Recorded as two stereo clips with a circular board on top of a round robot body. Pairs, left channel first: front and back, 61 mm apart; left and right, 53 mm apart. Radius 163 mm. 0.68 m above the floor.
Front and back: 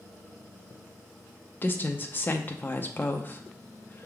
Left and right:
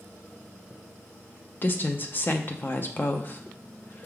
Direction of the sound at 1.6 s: 50° left.